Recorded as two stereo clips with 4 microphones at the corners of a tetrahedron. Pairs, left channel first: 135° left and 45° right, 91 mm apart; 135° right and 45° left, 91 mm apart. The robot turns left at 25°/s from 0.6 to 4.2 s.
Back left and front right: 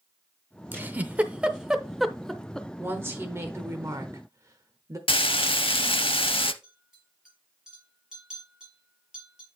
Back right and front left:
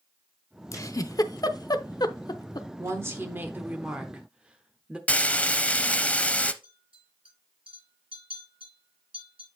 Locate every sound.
0.7 s a giggle: 100° right, 0.6 m; by 2.7 s 150° right, 0.6 m
2.8 s a woman speaking: 10° left, 0.9 m; by 5.0 s 25° right, 0.9 m
5.1 s frying: 150° left, 0.5 m
6.6 s a clink: 40° left, 6 m